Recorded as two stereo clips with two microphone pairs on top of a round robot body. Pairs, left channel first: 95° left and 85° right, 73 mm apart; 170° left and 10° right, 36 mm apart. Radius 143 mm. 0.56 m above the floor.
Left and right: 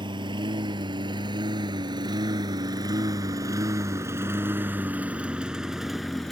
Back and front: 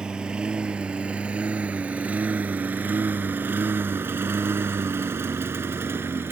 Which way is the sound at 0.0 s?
75° right.